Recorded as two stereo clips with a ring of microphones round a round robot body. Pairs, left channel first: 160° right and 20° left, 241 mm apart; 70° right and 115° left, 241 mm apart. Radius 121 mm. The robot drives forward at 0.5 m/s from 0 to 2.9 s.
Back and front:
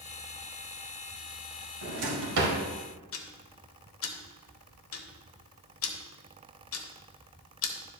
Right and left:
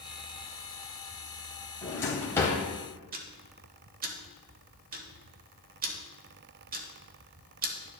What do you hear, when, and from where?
1.8 s a drawer: 10° left, 1.7 m; by 2.6 s 15° left, 1.3 m
3.1 s ticking: 170° left, 1.0 m